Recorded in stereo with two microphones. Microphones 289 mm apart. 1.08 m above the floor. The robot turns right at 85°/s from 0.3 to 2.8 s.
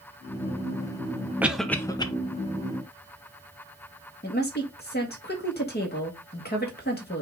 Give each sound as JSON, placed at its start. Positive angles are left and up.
{"t": 1.4, "sound": "a cough", "side_deg": -5, "distance_m": 0.7}
{"t": 4.2, "sound": "a woman speaking", "side_deg": 35, "distance_m": 1.3}